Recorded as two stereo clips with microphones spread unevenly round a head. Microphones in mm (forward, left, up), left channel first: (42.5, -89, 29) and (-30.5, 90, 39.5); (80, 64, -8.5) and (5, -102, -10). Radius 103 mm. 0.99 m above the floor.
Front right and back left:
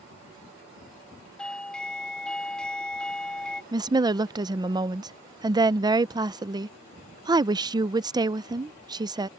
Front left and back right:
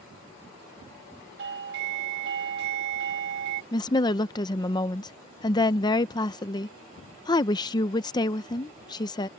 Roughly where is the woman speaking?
Left.